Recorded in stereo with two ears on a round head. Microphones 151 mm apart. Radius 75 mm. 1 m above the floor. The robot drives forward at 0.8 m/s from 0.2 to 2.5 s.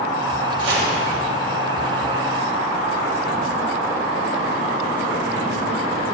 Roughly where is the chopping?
Right.